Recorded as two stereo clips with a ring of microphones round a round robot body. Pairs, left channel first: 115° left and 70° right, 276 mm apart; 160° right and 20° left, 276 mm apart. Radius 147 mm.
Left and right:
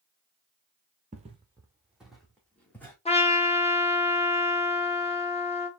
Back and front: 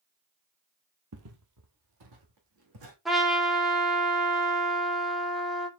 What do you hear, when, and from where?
1.1 s footsteps: 10° right, 0.8 m; by 3.0 s 30° left, 2 m
3.0 s a trumpet: 110° left, 1.1 m